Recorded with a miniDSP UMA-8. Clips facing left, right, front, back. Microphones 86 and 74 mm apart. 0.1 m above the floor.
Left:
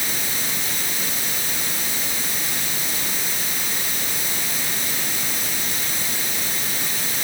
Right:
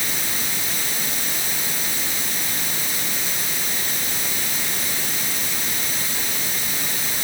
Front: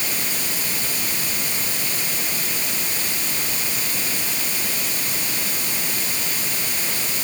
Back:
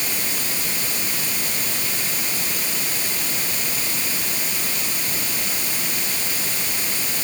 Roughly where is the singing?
No singing in this recording.